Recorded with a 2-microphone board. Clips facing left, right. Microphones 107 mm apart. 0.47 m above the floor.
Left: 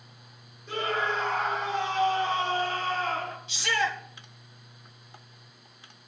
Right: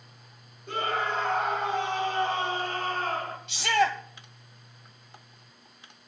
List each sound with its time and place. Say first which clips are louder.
0.7 s a scream: even; 60° right (ahead or behind), 7 m
3.5 s a shout: right 5 dB; 70° right (ahead or behind), 2.5 m